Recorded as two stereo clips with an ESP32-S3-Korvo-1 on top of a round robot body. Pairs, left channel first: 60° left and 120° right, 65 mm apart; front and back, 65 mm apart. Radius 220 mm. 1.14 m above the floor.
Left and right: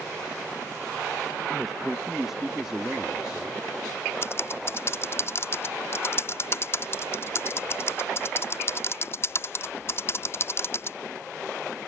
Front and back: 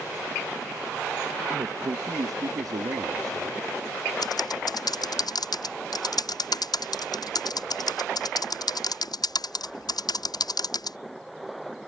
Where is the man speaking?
150° left; by 3.6 s 160° left.